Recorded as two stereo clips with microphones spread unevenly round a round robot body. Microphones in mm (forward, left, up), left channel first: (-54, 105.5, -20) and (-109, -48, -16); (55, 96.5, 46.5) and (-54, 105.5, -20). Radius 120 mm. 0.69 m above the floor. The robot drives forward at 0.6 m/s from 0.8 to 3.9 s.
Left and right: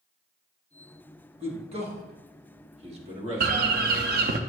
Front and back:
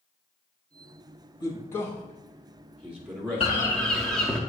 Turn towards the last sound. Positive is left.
turn(degrees=-120)